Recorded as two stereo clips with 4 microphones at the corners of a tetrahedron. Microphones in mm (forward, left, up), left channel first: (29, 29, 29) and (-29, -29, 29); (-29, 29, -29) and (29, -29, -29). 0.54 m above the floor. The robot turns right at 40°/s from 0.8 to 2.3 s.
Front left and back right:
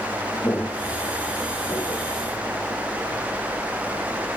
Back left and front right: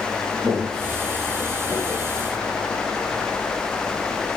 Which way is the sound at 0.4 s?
25° right.